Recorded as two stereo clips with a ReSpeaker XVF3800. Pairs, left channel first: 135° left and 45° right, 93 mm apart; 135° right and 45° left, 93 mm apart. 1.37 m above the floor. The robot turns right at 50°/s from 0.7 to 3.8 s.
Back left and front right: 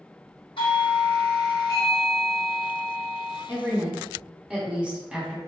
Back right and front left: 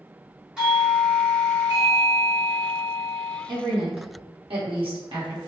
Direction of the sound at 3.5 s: 15° left.